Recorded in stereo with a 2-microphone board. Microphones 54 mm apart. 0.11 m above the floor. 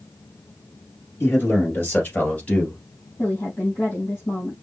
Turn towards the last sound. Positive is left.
turn(degrees=40)  # may be behind; listen again after turning